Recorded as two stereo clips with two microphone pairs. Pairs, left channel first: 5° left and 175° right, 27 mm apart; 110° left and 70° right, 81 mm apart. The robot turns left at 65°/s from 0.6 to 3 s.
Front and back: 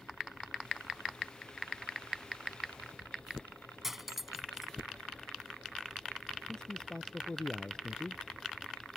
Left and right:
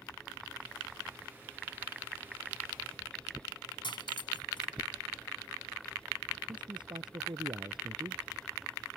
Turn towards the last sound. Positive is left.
turn(degrees=-55)